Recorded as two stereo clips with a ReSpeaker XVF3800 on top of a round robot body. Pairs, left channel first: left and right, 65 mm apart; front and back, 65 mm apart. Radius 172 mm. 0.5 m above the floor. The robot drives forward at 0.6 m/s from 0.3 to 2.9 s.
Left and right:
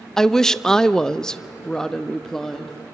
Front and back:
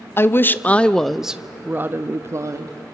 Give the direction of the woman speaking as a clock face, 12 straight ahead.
12 o'clock.